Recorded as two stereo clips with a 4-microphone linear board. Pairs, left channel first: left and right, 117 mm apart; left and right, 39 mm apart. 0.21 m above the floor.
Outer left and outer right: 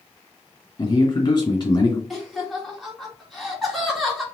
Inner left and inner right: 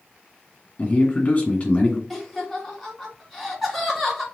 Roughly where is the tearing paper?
I don't hear tearing paper.